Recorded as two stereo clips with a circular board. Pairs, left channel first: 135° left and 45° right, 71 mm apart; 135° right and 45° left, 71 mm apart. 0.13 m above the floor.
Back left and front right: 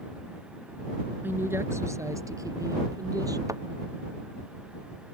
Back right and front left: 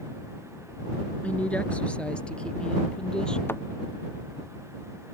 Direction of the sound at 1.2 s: 80° right.